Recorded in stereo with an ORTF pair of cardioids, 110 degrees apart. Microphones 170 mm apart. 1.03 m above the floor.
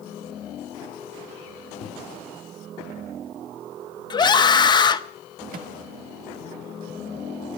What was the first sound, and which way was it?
A microwave, 40° left.